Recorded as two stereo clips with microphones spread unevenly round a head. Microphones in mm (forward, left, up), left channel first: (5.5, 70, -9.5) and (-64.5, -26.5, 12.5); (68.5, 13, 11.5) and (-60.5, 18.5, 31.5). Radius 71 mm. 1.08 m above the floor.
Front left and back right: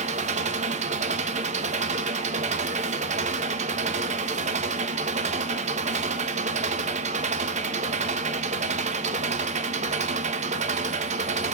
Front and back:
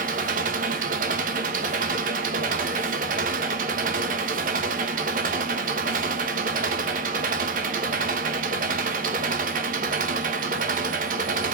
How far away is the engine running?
About 1.2 m.